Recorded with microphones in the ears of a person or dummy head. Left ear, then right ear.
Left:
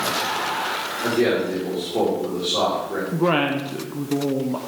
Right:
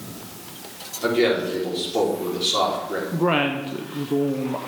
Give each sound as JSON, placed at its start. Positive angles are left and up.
{"t": 1.0, "sound": "a man speaking", "side_deg": -60, "distance_m": 4.0}
{"t": 3.1, "sound": "a woman speaking", "side_deg": -5, "distance_m": 0.7}